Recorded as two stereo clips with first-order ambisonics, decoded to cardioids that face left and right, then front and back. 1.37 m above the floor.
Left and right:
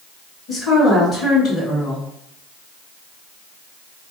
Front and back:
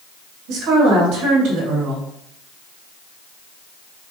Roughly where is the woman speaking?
Behind.